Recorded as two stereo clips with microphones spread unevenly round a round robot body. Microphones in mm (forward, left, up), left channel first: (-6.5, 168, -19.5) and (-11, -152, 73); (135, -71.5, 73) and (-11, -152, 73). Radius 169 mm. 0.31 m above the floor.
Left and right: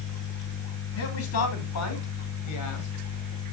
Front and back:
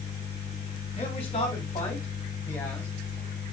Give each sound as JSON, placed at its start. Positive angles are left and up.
{"t": 1.0, "sound": "a man speaking", "azimuth_deg": 80, "distance_m": 2.0}